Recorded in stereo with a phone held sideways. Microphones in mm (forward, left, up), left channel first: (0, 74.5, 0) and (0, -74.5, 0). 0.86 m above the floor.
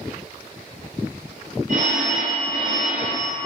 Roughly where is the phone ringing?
Right.